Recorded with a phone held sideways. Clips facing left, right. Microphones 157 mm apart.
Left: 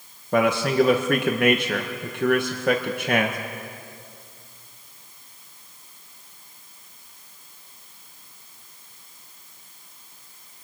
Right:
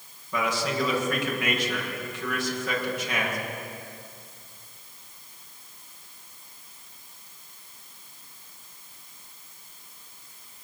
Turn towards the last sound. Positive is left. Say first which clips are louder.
# left 8 dB
turn(degrees=65)  # may be behind; listen again after turning